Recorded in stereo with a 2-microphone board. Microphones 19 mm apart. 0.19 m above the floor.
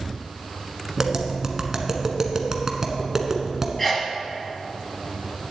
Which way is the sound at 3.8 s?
10° left (ahead or behind).